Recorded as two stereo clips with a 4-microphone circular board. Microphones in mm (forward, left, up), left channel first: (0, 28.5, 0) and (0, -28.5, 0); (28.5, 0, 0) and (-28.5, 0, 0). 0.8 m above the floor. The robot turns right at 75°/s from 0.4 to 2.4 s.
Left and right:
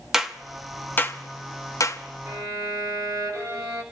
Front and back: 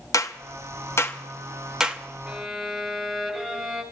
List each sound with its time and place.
0.1 s a clap: 5° right, 1.0 m; by 2.0 s 115° left, 1.0 m
2.3 s a violin: 105° right, 3.5 m; by 3.8 s 95° right, 3.5 m